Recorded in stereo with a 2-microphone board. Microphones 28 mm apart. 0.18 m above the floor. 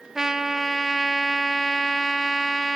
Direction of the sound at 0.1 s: 15° right (ahead or behind).